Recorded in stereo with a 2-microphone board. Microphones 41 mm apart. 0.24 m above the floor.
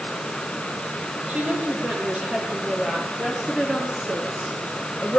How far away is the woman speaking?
About 8.5 m.